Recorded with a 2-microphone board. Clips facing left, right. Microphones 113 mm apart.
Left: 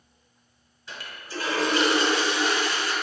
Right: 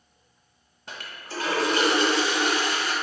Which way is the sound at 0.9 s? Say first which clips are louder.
Even; 60° right (ahead or behind).